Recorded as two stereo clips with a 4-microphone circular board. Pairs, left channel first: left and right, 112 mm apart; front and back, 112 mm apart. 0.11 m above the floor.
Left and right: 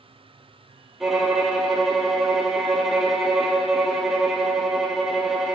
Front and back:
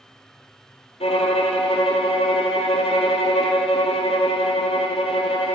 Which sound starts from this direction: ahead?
A violin, at 1.0 s.